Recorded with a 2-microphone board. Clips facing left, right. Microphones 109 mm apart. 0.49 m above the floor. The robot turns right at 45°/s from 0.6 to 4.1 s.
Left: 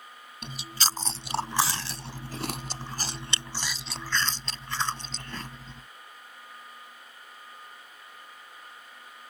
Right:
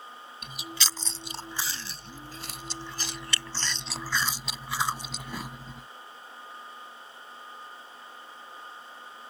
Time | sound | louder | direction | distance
0.4 | chewing | left 4 dB | 30° left (ahead or behind) | ?